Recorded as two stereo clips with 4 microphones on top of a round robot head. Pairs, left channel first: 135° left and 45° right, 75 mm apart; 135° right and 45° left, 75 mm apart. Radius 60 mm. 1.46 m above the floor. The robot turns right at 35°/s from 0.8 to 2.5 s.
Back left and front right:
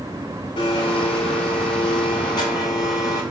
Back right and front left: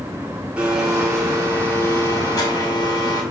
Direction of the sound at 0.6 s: 120° left.